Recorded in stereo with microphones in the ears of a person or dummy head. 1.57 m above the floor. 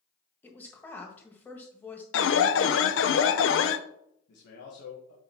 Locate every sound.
0.4 s a woman speaking: 10° left (ahead or behind), 1.5 m
2.1 s an alarm: 65° left (ahead or behind), 0.6 m
4.3 s a man speaking: 60° left (ahead or behind), 1.6 m